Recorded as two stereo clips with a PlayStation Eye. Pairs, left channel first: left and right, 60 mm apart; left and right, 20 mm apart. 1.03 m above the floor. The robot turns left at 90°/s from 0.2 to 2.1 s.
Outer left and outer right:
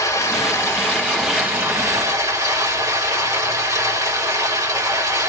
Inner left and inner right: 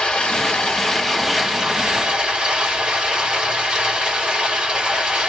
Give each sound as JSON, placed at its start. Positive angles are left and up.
{"t": 0.0, "sound": "running water", "azimuth_deg": 90, "distance_m": 2.5}